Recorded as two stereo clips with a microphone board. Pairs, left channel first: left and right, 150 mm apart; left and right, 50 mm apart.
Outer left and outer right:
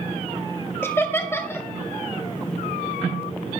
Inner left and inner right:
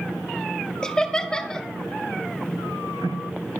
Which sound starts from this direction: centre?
Laughter, at 0.8 s.